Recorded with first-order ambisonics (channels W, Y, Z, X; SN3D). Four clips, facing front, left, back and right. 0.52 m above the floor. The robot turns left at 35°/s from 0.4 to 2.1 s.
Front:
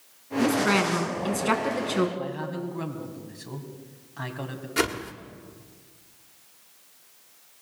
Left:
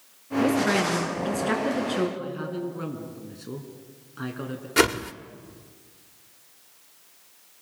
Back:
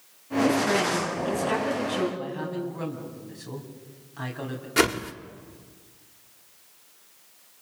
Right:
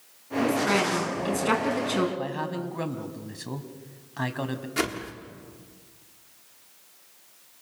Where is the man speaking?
85° right, 4 m.